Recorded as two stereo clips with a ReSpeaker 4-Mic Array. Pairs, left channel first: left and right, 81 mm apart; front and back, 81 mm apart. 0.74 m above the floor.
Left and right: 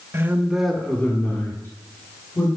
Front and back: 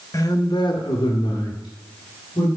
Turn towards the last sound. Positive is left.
turn(degrees=30)